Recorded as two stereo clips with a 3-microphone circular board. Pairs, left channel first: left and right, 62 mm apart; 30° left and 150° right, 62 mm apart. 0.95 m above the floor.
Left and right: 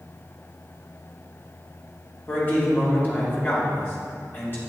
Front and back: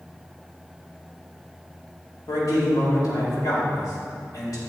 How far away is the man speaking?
About 2.5 m.